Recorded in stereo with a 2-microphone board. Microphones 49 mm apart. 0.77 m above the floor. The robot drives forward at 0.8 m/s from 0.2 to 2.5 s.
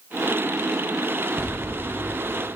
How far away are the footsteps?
About 1.8 m.